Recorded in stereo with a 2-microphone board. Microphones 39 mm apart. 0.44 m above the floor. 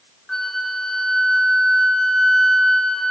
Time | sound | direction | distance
0.3 | a flute | 10° left (ahead or behind) | 1.5 m